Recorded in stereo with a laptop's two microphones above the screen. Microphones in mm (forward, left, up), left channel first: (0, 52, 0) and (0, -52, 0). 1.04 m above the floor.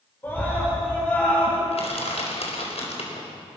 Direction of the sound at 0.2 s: 20° left (ahead or behind).